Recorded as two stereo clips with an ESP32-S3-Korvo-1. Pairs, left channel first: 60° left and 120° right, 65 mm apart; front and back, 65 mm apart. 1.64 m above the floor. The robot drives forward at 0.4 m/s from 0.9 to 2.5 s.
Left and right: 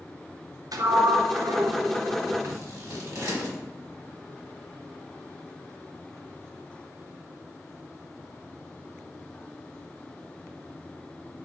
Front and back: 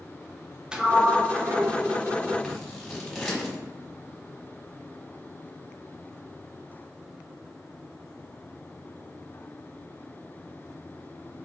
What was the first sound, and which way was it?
A sliding door, 105° right.